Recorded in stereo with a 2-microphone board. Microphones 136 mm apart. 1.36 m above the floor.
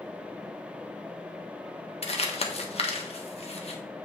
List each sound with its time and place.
2.0 s crumpling: 50° left (ahead or behind), 1.2 m